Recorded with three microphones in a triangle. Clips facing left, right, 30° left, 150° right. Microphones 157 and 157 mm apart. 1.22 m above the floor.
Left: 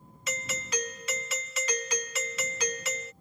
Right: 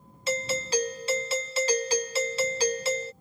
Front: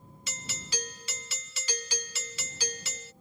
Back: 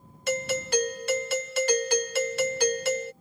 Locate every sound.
0.3 s a doorbell: 145° right